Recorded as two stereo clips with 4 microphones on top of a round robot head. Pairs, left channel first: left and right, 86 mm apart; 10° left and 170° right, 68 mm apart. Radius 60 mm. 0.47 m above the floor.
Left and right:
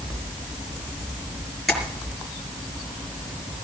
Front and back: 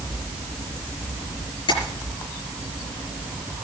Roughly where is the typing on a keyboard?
No typing on a keyboard in this recording.